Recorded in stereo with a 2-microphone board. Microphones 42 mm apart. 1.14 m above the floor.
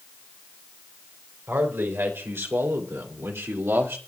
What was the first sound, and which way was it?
A man speaking, 70° right (ahead or behind).